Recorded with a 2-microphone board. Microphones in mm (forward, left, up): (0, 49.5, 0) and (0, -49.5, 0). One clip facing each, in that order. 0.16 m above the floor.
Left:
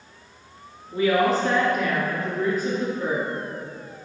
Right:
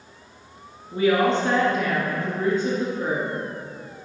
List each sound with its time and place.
0.9 s a woman speaking: 30° right (ahead or behind), 2 m